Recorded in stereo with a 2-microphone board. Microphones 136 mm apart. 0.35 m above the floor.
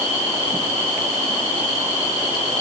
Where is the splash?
I don't hear a splash.